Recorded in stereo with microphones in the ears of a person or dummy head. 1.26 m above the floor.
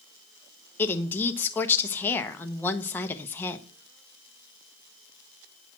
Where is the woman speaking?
15° left (ahead or behind), 0.8 m.